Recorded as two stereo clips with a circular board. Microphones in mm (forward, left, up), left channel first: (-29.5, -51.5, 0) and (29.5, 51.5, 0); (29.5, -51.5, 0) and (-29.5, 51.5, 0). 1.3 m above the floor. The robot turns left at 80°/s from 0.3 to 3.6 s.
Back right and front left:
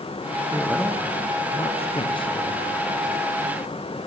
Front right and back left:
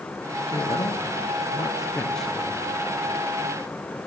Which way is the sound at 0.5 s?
10° right.